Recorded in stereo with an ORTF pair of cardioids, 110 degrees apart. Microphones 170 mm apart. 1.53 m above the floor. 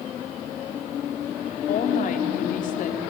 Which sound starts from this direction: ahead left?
A woman speaking, at 1.7 s.